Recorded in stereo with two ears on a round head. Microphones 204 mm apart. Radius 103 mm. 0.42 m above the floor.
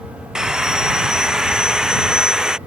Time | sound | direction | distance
0.3 | sawing | 5° right (ahead or behind) | ?